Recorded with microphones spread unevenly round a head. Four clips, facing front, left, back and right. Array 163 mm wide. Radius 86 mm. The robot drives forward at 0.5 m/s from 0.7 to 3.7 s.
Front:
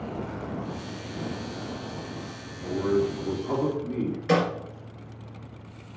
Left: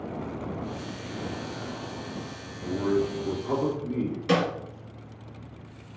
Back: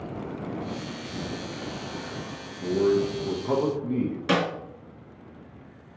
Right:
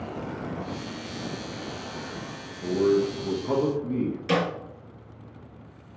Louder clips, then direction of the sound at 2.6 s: Right 4 dB, back 2 dB; 120° right.